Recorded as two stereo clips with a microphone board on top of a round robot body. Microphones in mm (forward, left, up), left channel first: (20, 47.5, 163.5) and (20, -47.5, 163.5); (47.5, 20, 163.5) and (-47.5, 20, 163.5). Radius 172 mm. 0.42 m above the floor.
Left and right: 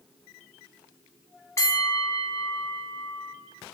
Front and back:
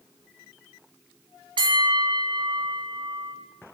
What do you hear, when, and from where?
1.6 s a bell: 145° left, 1.5 m